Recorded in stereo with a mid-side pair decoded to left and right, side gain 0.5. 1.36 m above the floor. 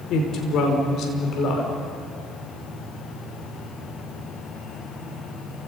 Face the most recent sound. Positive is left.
turn(degrees=65)